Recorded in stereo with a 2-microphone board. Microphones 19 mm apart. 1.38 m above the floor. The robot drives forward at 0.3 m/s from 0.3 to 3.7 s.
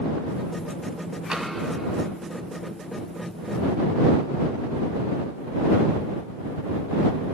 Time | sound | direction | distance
1.3 | tapping | 40° right (ahead or behind) | 1.9 m